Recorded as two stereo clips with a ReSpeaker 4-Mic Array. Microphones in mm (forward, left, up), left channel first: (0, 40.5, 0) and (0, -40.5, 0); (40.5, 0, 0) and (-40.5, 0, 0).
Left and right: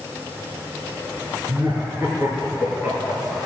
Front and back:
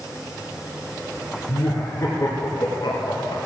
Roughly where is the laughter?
Ahead right.